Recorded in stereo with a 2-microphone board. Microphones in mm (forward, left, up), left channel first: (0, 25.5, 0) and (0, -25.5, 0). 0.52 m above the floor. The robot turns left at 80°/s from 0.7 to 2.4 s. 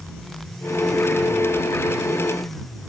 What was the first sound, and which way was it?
Only background noise.